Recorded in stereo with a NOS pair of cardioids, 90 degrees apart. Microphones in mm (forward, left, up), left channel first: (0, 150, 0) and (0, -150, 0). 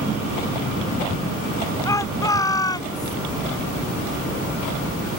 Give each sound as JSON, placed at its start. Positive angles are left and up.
{"t": 1.9, "sound": "a shout", "azimuth_deg": 10}